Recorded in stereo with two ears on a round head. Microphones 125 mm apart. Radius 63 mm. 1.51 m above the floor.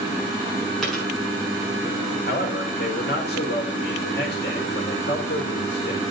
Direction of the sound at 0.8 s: Centre (ahead or behind).